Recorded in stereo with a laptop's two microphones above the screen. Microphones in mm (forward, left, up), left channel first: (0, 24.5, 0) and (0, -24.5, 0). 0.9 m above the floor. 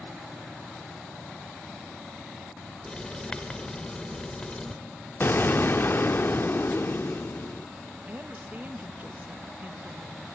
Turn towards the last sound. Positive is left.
turn(degrees=-35)  # may be behind; listen again after turning